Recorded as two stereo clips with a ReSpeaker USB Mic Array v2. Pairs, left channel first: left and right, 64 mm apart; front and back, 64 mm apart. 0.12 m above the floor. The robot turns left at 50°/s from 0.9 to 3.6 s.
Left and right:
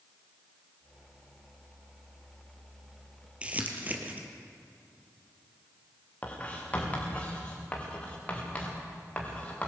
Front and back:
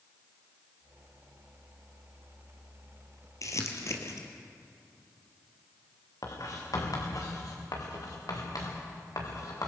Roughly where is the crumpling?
Ahead.